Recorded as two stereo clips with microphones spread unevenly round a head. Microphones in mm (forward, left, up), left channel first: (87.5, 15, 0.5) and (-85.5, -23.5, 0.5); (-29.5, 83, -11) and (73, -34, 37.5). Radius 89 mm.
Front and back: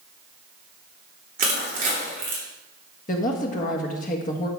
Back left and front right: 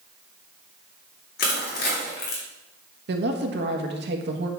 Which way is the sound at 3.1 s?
30° right.